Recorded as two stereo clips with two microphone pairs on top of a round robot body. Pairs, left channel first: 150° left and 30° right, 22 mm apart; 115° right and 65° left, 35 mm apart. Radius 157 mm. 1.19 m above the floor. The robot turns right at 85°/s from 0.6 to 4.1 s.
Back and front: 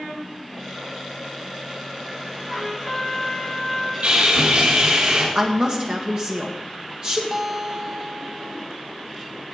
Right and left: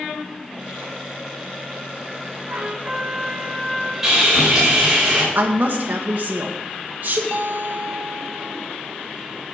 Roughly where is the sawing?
Ahead.